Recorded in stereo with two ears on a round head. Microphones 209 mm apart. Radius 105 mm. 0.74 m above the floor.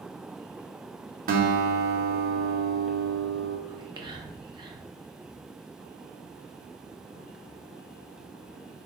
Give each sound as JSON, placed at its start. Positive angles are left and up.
{"t": 1.3, "sound": "a guitar", "side_deg": -40, "distance_m": 0.7}
{"t": 3.7, "sound": "whispering", "side_deg": -20, "distance_m": 0.6}